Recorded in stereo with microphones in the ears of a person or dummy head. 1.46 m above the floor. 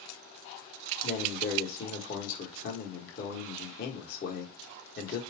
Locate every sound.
1.0 s a man speaking: 50° left (ahead or behind), 1.4 m